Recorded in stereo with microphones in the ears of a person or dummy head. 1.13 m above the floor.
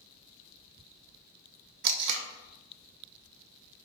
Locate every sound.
1.8 s tape being pulled: 60° right (ahead or behind), 0.7 m